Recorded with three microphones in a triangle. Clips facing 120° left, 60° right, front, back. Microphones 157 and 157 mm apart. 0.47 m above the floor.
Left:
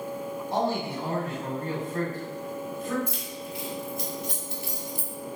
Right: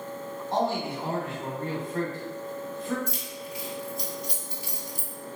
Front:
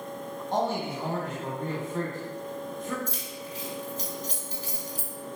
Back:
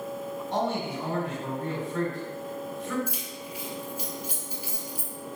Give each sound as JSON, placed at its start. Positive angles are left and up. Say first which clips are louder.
{"t": 0.5, "sound": "a man speaking", "louder": "right 1 dB, front 1 dB", "azimuth_deg": -20, "distance_m": 1.3}
{"t": 3.1, "sound": "keys jangling", "louder": "left 1 dB, even", "azimuth_deg": 105, "distance_m": 0.8}